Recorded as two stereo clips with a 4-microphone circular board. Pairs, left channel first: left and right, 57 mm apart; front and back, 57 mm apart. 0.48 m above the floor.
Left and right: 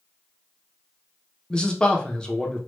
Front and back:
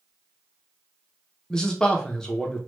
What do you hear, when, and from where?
1.5 s a man speaking: 50° left, 0.7 m